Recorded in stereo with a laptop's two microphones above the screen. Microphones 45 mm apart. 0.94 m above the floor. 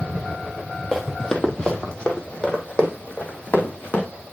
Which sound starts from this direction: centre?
Running footsteps, at 0.9 s.